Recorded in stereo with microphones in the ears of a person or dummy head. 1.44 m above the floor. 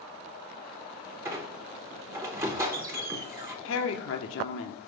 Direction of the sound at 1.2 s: 20° right (ahead or behind).